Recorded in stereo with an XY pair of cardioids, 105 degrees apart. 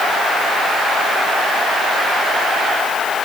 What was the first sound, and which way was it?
Only background noise.